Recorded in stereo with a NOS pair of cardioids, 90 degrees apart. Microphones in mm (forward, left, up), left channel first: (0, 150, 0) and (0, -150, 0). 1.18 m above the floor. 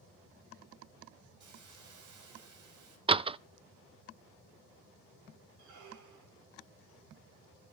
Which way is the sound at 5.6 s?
70° right.